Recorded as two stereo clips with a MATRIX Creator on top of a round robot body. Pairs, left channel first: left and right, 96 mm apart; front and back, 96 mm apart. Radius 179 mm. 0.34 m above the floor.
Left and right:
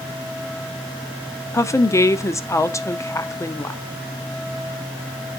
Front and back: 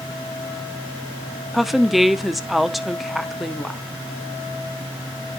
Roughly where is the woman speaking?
Left.